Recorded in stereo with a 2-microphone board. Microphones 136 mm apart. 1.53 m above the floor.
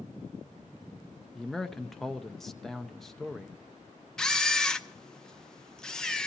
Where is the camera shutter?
5° left (ahead or behind), 0.6 m.